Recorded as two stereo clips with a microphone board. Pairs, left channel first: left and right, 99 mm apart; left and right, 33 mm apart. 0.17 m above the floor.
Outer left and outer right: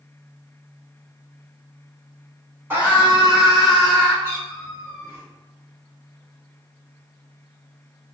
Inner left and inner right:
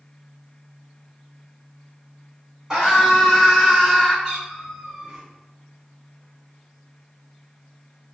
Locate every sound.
2.7 s a scream: 20° right (ahead or behind), 1.5 m; by 4.1 s 15° left (ahead or behind), 2 m
4.2 s a cat meowing: 20° right (ahead or behind), 1.9 m